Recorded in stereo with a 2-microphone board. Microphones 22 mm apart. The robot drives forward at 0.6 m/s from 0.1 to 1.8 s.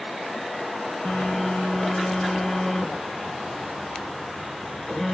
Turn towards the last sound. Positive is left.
turn(degrees=45)  # may be behind; listen again after turning